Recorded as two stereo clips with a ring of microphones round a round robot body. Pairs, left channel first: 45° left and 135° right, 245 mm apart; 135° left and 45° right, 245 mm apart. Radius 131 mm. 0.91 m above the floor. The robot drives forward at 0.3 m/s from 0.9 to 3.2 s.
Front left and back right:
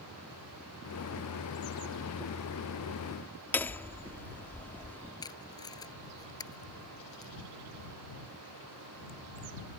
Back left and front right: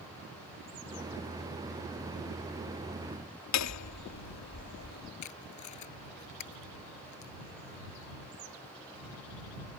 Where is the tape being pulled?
120° left.